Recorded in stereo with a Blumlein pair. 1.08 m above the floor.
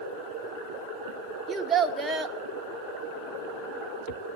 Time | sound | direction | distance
1.5 | a child speaking | 10° right | 1.3 m